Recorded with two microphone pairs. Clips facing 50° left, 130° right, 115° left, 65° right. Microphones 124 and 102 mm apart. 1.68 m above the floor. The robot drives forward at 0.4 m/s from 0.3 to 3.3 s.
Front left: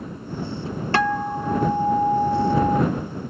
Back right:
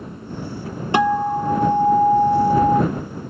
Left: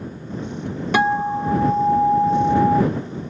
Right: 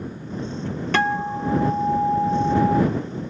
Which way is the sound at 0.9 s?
175° left.